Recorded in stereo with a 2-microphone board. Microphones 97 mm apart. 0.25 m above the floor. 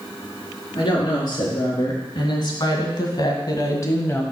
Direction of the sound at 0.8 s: 50° left (ahead or behind).